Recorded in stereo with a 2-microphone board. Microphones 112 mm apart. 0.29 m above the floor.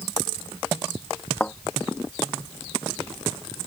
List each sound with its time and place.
1.4 s a thud: 10° left (ahead or behind)